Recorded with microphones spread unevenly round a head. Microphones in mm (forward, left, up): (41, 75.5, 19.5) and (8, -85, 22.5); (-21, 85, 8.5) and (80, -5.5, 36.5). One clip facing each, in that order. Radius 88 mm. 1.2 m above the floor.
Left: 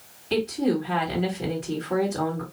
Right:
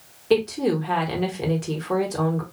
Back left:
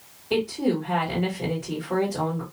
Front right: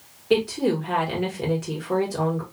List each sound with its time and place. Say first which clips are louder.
0.3 s a woman speaking: right 3 dB, front right 3 dB; 85° right, 1.3 m